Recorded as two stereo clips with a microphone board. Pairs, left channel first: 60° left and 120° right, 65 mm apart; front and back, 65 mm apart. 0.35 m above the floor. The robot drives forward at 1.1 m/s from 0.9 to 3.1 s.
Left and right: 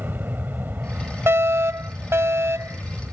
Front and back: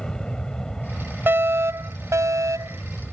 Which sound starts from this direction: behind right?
A fire alarm, at 1.3 s.